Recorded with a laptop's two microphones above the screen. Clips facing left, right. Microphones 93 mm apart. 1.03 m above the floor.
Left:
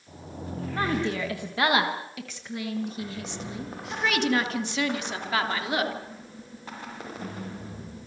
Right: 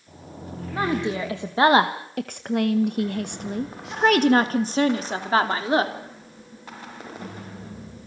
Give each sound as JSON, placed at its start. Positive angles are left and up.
{"t": 0.7, "sound": "a woman speaking", "side_deg": -15, "distance_m": 1.7}